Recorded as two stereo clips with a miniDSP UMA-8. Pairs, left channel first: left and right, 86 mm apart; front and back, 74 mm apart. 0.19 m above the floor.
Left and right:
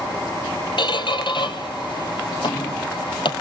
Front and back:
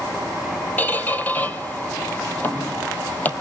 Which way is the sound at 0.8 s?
65° left.